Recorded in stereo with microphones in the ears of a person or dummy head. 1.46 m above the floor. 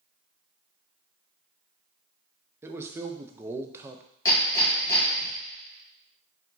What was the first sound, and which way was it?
A man speaking, 15° right (ahead or behind).